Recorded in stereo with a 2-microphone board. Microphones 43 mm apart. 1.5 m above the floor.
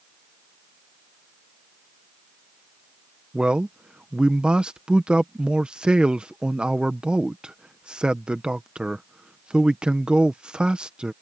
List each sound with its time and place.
3.3 s a man speaking: 20° right (ahead or behind)